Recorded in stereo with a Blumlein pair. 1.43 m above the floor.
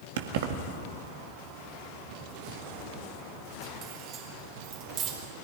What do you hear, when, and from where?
0.2 s keys jangling: 55° right, 1.7 m; by 5.1 s 35° right, 4.5 m